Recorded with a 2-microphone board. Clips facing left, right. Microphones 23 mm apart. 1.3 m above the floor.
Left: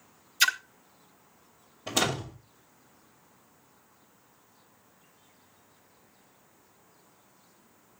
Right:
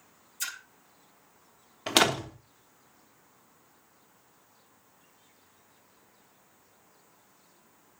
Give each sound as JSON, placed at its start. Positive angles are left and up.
{"t": 0.4, "sound": "a splash", "side_deg": 50, "distance_m": 1.2}
{"t": 1.9, "sound": "a door slam", "side_deg": -60, "distance_m": 3.0}